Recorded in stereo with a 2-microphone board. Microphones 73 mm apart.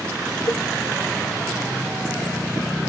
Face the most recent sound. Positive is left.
turn(degrees=35)  # may be behind; listen again after turning